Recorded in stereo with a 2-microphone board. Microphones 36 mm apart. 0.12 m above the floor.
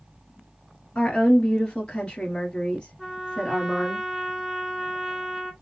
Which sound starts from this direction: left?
A woman speaking, at 0.9 s.